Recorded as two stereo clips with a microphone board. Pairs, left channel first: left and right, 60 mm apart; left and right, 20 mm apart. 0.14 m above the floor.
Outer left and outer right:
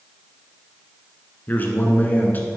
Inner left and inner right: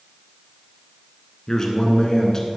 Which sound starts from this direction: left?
A man speaking, at 1.5 s.